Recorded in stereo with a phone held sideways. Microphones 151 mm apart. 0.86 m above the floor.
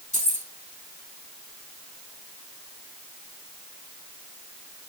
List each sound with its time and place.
0.1 s keys jangling: 50° left (ahead or behind), 4 m